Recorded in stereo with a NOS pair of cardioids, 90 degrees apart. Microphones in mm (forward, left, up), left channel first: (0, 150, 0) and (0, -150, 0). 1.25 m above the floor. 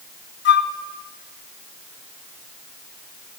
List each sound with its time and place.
0.5 s a flute: 40° left, 0.8 m